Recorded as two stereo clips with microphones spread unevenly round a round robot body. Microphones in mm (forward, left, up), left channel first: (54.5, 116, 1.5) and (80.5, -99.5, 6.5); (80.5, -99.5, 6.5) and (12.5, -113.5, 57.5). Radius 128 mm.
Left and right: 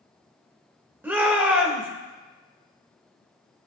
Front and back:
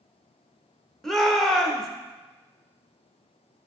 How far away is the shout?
About 1.0 m.